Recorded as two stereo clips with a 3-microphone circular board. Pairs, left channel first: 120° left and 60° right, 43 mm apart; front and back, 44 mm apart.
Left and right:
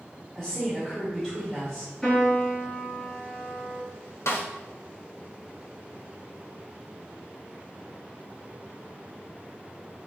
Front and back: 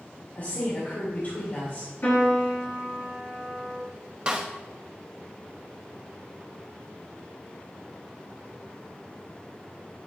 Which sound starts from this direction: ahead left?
A piano, at 2.0 s.